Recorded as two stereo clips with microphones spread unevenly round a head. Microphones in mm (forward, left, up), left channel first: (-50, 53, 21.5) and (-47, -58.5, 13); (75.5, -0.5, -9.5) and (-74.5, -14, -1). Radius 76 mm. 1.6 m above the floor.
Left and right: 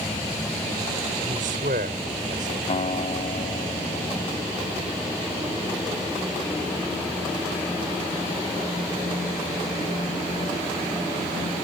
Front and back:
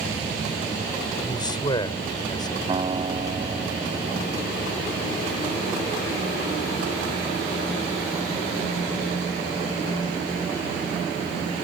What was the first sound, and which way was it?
A man speaking, 60° right.